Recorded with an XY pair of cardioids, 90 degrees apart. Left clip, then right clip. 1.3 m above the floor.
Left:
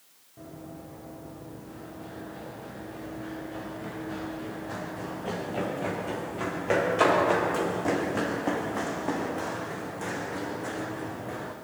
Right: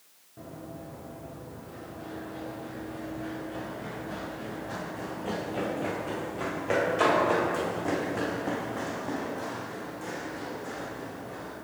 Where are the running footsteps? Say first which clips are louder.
Right 1 dB; 20° right, 6 m; by 11.6 s 70° left, 4 m.